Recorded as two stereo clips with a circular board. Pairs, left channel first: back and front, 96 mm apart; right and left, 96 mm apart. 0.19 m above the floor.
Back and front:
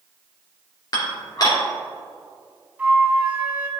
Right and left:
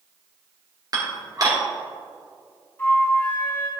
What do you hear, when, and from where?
0.9 s dishes clattering: 135° left, 2.5 m
2.8 s a flute: 55° right, 1.4 m